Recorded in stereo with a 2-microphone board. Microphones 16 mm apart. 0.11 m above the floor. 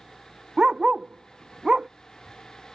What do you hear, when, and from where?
0.6 s a dog barking: 60° right (ahead or behind)